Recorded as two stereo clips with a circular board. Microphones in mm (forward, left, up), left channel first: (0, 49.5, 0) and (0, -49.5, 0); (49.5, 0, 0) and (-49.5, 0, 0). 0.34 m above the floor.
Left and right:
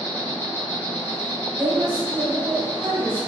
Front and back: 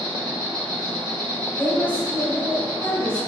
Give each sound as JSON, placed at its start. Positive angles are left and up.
{"t": 0.0, "sound": "an insect", "azimuth_deg": 35, "distance_m": 1.7}
{"t": 1.6, "sound": "a woman speaking", "azimuth_deg": -55, "distance_m": 1.3}